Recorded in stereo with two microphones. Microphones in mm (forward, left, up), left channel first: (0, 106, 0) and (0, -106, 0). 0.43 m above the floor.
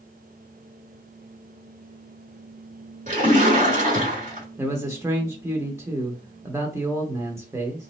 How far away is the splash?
About 1.4 m.